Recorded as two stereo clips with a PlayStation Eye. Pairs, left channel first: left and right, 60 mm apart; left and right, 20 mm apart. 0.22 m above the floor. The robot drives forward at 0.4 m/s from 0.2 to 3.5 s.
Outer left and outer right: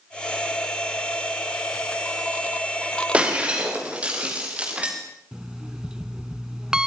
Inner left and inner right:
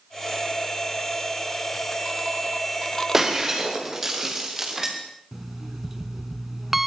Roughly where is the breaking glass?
Centre.